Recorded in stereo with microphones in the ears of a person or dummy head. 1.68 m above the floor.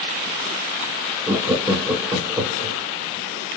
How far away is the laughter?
About 0.6 m.